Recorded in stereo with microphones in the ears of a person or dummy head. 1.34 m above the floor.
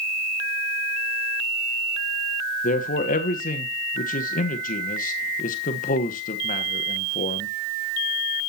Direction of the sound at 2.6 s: 35° left (ahead or behind).